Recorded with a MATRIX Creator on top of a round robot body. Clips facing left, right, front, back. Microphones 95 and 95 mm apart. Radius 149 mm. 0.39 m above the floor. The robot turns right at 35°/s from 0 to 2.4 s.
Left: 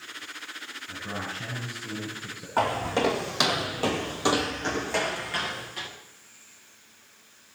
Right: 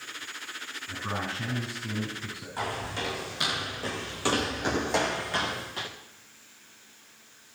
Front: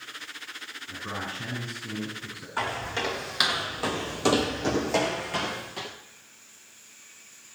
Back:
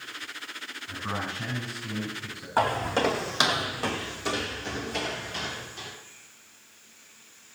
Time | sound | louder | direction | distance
0.9 | a man speaking | right 2 dB, back 2 dB | 130° right | 5.5 m
2.6 | footsteps | left 9 dB, back 6 dB | 130° left | 1.9 m